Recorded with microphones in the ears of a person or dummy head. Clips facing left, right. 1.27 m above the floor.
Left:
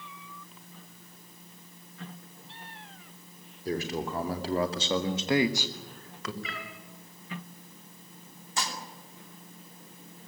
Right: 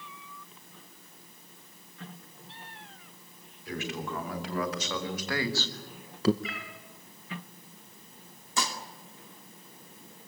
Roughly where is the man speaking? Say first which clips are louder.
Left 4 dB; left.